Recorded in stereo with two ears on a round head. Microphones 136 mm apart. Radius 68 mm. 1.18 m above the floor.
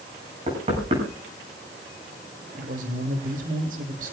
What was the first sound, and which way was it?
Knocking, 40° right (ahead or behind).